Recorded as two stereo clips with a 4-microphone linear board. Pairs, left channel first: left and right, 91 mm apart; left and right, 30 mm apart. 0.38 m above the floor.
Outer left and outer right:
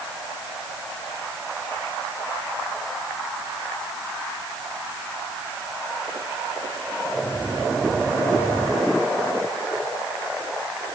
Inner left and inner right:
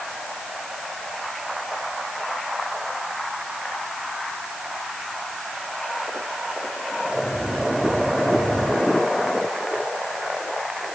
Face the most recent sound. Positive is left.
No sound to turn to.